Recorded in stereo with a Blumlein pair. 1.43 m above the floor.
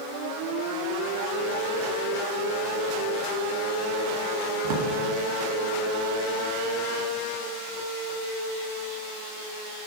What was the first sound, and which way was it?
A drawer, 50° right.